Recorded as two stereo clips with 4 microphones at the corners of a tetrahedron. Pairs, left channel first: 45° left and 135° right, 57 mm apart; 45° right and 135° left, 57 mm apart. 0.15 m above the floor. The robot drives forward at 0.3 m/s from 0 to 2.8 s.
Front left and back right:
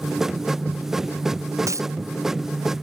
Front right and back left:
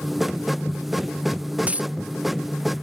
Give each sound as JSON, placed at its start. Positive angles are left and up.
{"t": 1.7, "sound": "a dropped coin", "azimuth_deg": -160}